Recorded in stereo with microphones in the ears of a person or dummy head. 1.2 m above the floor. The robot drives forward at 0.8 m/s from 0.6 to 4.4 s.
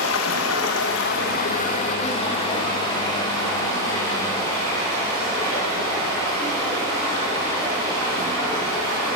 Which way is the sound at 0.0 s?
85° left.